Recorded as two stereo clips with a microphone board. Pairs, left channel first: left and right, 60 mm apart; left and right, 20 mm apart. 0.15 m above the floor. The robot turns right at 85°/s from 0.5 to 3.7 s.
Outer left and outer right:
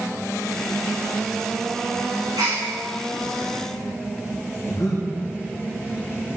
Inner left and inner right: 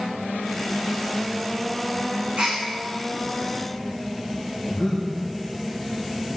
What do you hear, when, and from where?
2.4 s a gasp: 85° right, 8 m; by 2.6 s 70° right (ahead or behind), 8 m
4.7 s breathing: 55° left (ahead or behind), 8 m